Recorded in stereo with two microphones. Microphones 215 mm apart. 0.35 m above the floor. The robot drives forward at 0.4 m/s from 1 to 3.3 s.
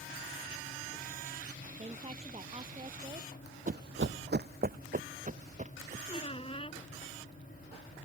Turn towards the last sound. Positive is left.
turn(degrees=30)  # may be behind; listen again after turning